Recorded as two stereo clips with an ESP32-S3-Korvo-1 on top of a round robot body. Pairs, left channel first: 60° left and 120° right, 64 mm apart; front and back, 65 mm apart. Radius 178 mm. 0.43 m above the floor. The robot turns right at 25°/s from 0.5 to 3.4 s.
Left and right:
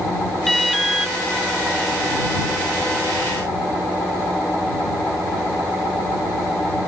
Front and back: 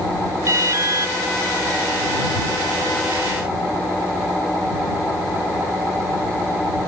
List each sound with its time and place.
0.5 s an alarm: 145° left; by 1.1 s 160° left